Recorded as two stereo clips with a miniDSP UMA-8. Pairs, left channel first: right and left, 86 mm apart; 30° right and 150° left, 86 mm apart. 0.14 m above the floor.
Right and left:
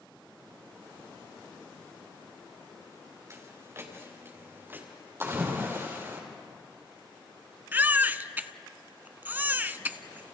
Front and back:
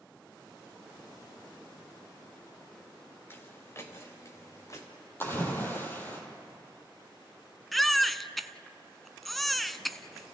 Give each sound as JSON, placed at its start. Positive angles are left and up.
{"t": 3.3, "sound": "footsteps", "azimuth_deg": 35, "distance_m": 4.0}
{"t": 5.2, "sound": "a splash", "azimuth_deg": 30, "distance_m": 4.0}
{"t": 7.7, "sound": "a baby crying", "azimuth_deg": 55, "distance_m": 0.6}